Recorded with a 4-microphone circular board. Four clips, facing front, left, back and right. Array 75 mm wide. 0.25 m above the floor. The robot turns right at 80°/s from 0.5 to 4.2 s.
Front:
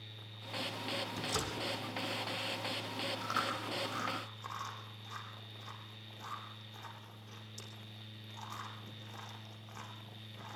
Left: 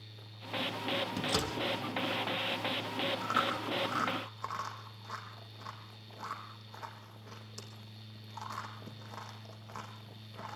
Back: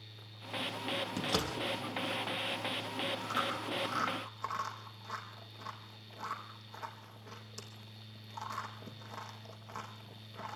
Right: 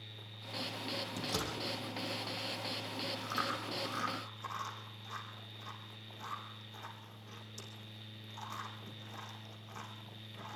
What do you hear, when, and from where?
1.2 s a door slam: 155° left, 5 m; by 1.6 s 175° right, 5 m
3.2 s chewing: 60° left, 5 m; by 10.6 s 135° left, 5 m